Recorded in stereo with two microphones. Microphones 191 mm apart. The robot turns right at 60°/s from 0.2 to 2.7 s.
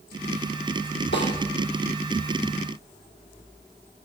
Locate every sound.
1.1 s a snare drum: 75° left (ahead or behind), 6 m